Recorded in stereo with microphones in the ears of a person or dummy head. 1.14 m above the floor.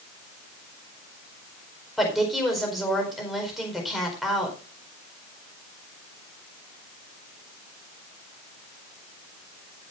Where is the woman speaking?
Centre (ahead or behind), 4.5 m.